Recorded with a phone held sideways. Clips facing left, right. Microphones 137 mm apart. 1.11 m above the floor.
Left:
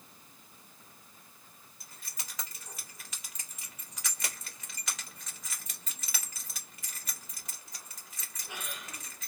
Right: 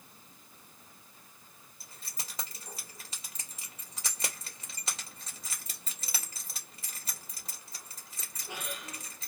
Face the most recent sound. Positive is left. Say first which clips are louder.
# right 2 dB
turn(degrees=-30)  # may be behind; listen again after turning